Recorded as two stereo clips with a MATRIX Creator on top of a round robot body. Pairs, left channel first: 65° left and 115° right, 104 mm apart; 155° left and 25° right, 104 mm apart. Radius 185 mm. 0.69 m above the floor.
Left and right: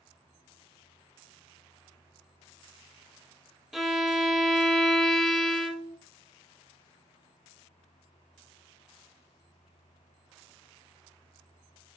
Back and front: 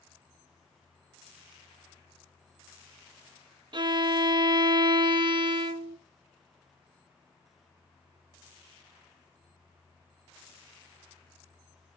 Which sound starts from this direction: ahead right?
A violin, at 3.7 s.